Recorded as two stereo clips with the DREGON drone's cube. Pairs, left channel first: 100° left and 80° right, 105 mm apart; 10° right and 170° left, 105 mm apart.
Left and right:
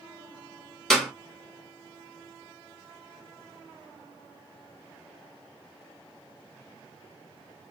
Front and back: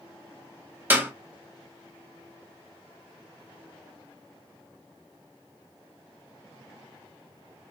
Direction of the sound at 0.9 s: 175° left.